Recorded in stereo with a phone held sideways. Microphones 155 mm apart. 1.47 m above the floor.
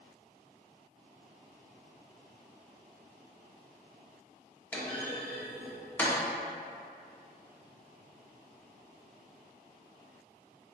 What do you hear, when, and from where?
4.7 s a clunk: 10° left (ahead or behind), 0.7 m